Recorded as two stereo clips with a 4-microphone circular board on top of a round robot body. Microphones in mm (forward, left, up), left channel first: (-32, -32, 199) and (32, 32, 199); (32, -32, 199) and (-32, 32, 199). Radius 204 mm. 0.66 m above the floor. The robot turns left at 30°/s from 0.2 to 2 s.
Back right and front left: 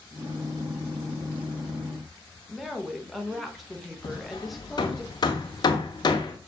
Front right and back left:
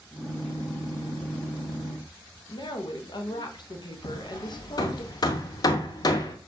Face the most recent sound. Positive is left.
turn(degrees=-90)